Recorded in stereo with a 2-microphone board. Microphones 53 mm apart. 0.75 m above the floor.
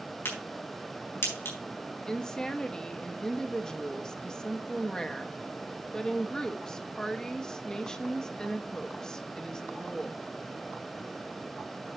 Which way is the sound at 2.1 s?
10° left (ahead or behind).